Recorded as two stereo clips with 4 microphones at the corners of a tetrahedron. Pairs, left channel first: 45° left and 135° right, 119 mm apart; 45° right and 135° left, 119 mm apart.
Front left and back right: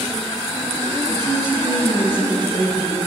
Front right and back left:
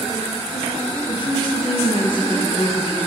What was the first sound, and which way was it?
A woman speaking, 90° right.